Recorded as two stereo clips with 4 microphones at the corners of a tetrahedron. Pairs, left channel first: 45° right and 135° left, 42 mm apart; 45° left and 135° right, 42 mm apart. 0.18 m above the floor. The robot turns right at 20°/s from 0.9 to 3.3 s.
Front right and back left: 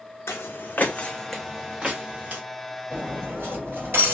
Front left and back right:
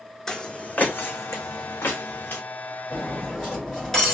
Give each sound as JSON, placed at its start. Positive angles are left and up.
{"t": 0.3, "sound": "footsteps", "azimuth_deg": -30, "distance_m": 0.5}
{"t": 2.9, "sound": "cutlery clinking", "azimuth_deg": 110, "distance_m": 1.9}